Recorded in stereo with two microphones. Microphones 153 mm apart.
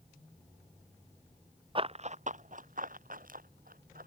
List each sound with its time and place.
1.8 s running footsteps: 35° right (ahead or behind); by 4.1 s 70° right (ahead or behind)